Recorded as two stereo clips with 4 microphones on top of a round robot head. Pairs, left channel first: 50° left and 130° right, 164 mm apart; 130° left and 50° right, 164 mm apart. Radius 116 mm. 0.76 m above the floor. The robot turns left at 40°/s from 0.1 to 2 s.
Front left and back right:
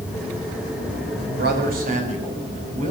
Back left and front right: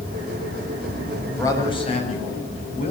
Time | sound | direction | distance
1.4 | a man speaking | 150° right | 5.5 m